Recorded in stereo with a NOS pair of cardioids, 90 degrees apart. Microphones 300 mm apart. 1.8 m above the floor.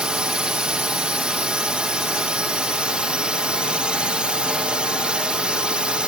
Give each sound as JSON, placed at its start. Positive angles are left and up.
{"t": 0.0, "sound": "a drone", "azimuth_deg": -5}